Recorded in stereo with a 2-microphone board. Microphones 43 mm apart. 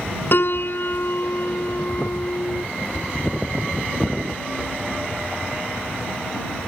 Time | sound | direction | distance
0.3 | a piano | 55° left (ahead or behind) | ?